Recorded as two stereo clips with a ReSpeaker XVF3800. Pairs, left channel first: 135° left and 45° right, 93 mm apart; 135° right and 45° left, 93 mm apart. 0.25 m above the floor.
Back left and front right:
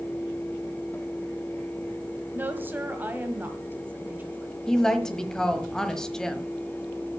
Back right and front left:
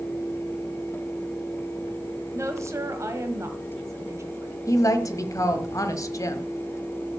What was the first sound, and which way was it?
A woman speaking, 10° left.